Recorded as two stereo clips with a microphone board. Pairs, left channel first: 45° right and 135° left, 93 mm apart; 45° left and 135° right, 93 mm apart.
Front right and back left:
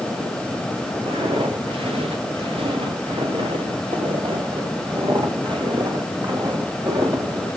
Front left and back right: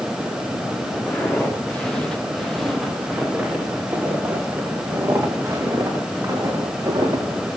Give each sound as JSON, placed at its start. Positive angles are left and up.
{"t": 1.1, "sound": "footsteps", "azimuth_deg": 120, "distance_m": 7.0}